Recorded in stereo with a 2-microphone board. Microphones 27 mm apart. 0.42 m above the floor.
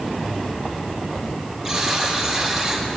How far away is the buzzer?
About 4 m.